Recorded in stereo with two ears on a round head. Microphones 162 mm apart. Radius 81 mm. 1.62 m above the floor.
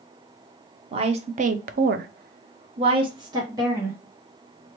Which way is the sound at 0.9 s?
30° right (ahead or behind).